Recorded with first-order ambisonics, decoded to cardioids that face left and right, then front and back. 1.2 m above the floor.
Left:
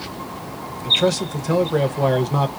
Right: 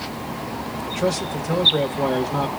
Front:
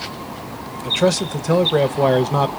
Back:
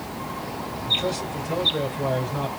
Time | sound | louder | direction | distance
0.8 | a man speaking | left 6 dB, front 6 dB | 20° left | 0.9 m